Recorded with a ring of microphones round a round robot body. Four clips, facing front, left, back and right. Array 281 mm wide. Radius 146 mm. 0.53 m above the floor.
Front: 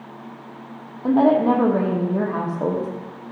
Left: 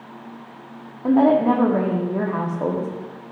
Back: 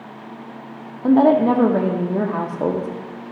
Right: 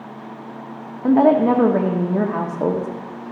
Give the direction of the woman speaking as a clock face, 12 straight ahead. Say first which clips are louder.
Right 2 dB, back 2 dB; 4 o'clock.